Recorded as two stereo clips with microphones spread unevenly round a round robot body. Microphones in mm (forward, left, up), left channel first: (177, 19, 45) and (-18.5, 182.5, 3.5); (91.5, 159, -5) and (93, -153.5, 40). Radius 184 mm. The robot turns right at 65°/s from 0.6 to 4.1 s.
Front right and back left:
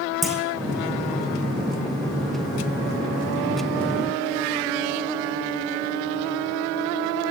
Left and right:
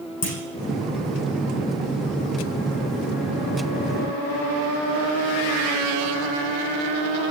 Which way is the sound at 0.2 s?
50° left.